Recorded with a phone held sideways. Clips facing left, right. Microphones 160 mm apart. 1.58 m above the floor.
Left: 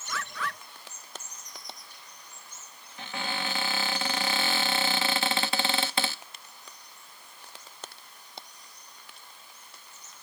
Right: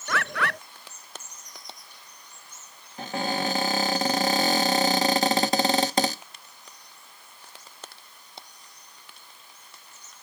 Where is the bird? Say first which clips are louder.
Right 7 dB; 70° right (ahead or behind).